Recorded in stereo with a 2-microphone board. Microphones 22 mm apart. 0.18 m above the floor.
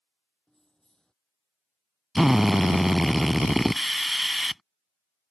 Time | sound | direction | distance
0.5 | keys jangling | 30° left (ahead or behind) | ?
2.1 | a drill | 10° right (ahead or behind) | ?